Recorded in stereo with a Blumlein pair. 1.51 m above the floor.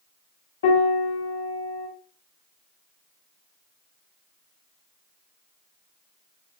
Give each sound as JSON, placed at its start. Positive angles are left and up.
{"t": 0.6, "sound": "a piano", "azimuth_deg": 65, "distance_m": 1.1}